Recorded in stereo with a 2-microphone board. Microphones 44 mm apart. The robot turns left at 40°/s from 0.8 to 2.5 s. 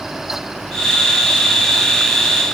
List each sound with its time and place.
Only background noise.